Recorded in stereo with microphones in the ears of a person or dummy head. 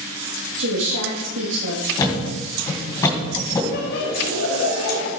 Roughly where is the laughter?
Left.